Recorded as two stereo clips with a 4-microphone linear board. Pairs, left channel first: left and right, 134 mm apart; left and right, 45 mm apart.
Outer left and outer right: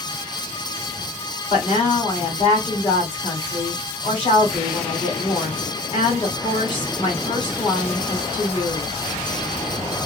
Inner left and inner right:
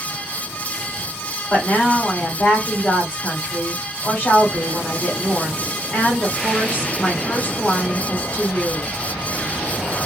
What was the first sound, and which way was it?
A woman speaking, 35° left (ahead or behind).